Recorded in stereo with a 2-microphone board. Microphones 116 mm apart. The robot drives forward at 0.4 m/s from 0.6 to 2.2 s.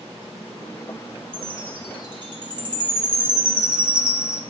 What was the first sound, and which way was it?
A chime, 50° right (ahead or behind).